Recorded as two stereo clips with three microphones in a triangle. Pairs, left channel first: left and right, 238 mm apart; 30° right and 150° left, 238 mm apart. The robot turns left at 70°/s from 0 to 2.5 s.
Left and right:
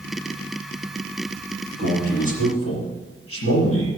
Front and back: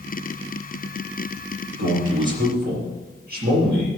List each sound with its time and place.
1.8 s a man speaking: 155° left, 5 m; by 3.9 s 105° left, 5 m